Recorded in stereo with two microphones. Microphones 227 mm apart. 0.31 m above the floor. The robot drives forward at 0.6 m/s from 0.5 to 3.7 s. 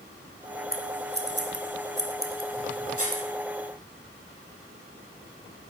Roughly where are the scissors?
Right.